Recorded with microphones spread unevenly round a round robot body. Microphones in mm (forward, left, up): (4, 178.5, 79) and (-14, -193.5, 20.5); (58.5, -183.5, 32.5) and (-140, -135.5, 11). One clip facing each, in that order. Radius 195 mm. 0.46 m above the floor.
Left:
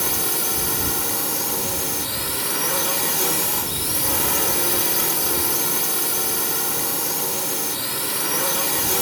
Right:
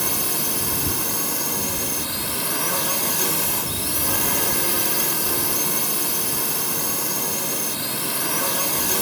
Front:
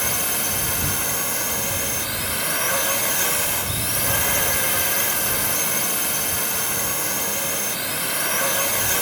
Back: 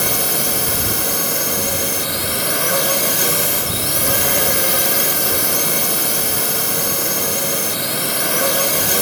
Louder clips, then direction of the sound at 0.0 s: Left 1 dB, back 7 dB; 175° right.